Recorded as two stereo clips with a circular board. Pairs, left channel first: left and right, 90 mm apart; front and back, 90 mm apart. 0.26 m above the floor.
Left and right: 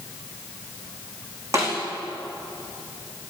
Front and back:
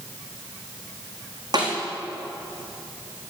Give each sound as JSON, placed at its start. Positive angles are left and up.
{"t": 1.5, "sound": "a snare drum", "azimuth_deg": -140, "distance_m": 5.0}